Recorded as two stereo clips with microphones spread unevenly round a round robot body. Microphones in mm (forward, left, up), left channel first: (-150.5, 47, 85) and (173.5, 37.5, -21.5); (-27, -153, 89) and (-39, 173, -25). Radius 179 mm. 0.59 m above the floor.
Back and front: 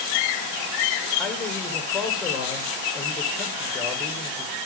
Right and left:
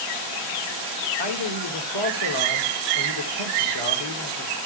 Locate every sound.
1.2 s a man speaking: 90° right, 2 m